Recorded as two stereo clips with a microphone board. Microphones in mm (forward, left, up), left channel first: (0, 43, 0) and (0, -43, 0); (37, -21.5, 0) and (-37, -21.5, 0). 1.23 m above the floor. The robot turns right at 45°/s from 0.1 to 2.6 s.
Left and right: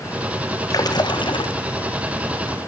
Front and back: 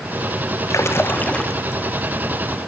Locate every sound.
0.7 s a splash: 45° left, 1.0 m; by 1.5 s 80° left, 1.0 m